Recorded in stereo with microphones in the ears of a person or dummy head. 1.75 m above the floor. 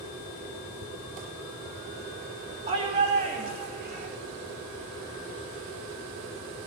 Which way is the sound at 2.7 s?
35° right (ahead or behind).